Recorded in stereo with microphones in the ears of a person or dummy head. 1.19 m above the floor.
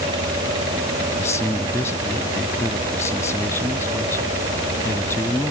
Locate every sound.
1.2 s a man speaking: 15° left (ahead or behind)